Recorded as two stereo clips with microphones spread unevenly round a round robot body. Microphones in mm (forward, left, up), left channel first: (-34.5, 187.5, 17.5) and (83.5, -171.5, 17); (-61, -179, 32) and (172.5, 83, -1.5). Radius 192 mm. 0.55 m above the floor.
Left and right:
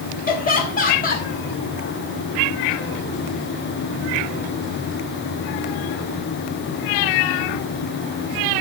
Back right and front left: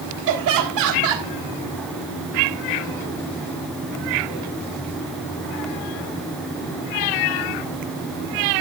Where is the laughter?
45° left, 1.9 m.